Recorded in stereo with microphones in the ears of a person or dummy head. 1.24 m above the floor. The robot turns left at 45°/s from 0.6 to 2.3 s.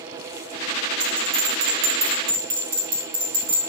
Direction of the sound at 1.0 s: Centre (ahead or behind).